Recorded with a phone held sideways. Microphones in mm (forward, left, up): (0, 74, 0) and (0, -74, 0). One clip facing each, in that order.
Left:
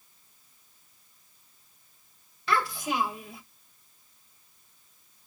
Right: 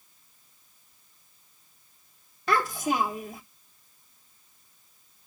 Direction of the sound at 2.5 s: 45° right (ahead or behind).